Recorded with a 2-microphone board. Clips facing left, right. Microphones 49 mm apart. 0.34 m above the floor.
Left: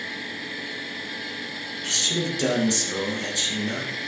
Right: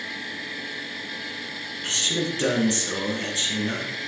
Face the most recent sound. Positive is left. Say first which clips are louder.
# right 1 dB
turn(degrees=-30)  # may be behind; listen again after turning